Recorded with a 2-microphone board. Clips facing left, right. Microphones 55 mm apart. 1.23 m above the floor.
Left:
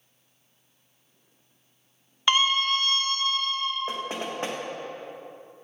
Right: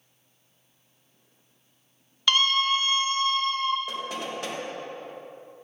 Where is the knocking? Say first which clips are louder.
Left 1 dB; 30° left (ahead or behind), 1.2 m.